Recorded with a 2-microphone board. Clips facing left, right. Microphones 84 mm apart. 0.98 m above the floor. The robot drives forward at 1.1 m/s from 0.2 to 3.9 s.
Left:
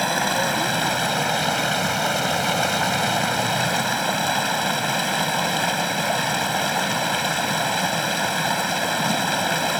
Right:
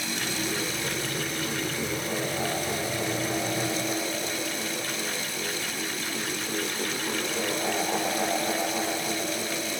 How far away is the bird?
No bird in this recording.